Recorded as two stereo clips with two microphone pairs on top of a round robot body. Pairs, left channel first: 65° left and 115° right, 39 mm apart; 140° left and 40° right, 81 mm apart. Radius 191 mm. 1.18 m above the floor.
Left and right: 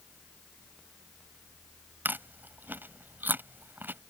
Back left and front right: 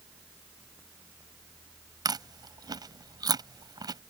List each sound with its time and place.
2.0 s chewing: 80° right